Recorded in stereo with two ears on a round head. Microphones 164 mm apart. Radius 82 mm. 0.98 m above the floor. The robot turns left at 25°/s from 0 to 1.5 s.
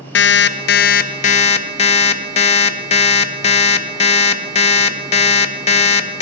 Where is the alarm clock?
70° left, 0.5 m; by 6.2 s 35° left, 0.5 m.